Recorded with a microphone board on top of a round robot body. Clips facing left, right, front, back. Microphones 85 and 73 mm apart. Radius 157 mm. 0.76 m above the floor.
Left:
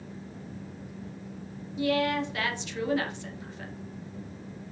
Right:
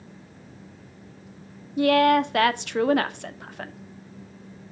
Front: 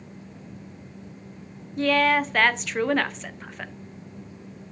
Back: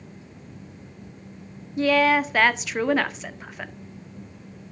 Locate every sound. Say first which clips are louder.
1.8 s a woman speaking: right 9 dB, back 2 dB; 95° right, 0.8 m